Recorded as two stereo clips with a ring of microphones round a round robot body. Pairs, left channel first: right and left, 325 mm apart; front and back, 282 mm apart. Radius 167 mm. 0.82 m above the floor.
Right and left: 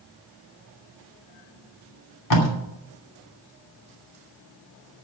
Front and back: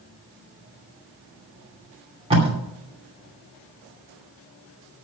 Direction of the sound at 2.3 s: 110° right.